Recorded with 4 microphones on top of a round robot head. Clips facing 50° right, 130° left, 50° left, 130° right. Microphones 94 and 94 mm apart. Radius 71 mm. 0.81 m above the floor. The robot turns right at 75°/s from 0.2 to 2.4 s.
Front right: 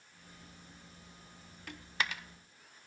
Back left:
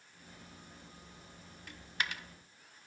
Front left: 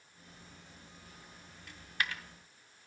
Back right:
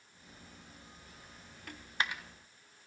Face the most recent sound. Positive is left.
turn(degrees=-30)